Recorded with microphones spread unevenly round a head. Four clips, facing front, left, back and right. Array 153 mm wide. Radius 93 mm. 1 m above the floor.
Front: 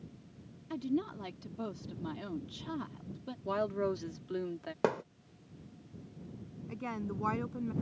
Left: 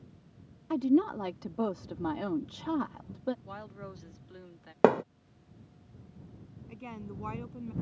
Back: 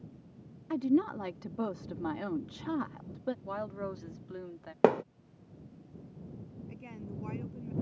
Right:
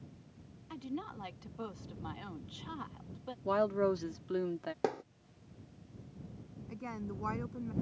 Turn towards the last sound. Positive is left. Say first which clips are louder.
# right 1 dB, front 9 dB
turn(degrees=0)